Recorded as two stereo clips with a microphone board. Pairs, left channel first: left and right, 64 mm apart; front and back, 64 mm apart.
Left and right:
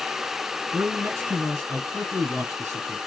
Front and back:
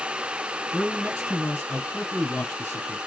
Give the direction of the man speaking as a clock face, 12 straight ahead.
2 o'clock.